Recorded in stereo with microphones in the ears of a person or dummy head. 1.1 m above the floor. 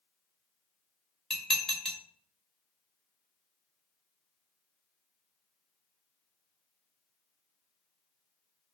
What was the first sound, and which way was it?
Dishes clattering, 5° left (ahead or behind).